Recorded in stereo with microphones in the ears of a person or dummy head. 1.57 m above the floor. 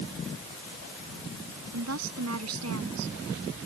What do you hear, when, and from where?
1.7 s a woman speaking: 90° right